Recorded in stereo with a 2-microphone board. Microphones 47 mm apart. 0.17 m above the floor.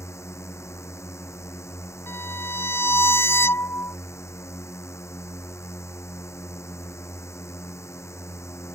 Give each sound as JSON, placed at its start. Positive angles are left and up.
{"t": 0.0, "sound": "a drone", "side_deg": 80}
{"t": 2.1, "sound": "a violin", "side_deg": 60}